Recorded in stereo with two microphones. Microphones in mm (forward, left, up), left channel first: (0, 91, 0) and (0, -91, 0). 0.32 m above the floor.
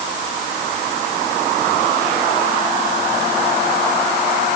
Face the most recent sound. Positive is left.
No sound to turn to.